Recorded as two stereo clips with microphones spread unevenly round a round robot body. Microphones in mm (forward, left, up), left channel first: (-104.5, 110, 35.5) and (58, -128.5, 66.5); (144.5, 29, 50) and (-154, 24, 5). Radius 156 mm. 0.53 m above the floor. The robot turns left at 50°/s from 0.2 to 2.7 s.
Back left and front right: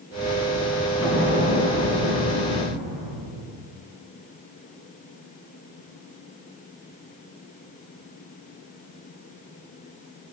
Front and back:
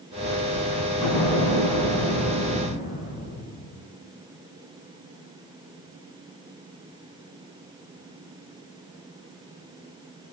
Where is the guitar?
I don't hear a guitar.